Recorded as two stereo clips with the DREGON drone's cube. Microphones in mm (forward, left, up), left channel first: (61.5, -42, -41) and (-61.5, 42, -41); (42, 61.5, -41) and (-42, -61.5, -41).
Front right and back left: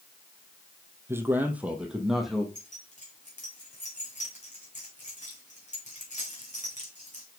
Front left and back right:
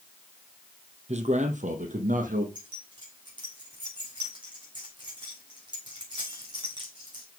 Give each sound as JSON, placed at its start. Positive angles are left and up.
{"t": 1.1, "sound": "a man speaking", "azimuth_deg": -145, "distance_m": 1.7}
{"t": 2.5, "sound": "keys jangling", "azimuth_deg": -65, "distance_m": 3.5}